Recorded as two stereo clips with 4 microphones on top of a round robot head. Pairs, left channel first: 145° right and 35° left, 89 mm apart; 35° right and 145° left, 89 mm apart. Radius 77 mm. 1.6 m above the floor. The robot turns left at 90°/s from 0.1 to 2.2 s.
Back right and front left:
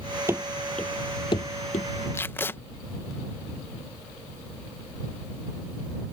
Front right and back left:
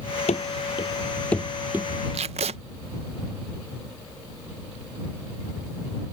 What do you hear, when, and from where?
0.3 s running footsteps: 30° right; by 1.9 s 150° right
2.1 s tape being pulled: 150° left; by 2.6 s 145° left